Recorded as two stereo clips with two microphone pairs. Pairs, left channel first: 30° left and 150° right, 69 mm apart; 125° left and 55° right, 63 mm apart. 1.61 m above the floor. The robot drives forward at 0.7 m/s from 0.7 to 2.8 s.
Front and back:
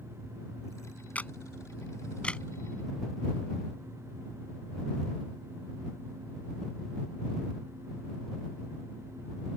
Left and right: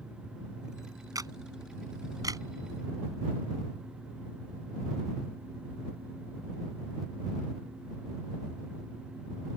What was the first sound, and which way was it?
A camera shutter, 40° right.